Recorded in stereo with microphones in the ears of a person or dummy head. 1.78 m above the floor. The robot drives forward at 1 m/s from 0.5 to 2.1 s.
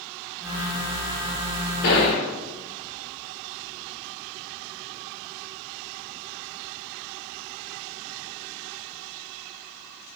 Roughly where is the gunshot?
Left.